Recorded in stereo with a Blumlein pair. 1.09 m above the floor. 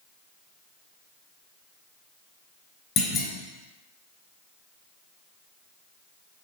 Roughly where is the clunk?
Ahead left.